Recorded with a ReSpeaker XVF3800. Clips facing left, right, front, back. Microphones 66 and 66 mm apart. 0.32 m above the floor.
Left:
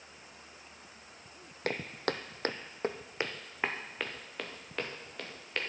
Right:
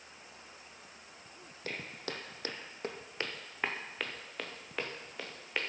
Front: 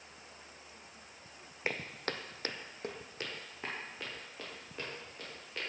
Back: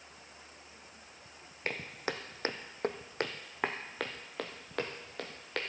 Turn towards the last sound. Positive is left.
turn(degrees=-170)